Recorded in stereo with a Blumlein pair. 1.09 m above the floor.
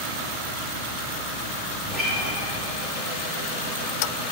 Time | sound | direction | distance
1.8 | a guitar | 20° right | 2.5 m